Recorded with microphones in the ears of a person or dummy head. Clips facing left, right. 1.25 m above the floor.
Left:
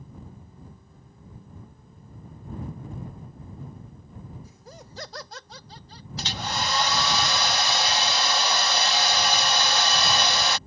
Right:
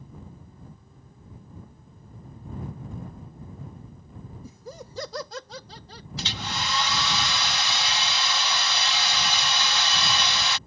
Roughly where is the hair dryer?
Left.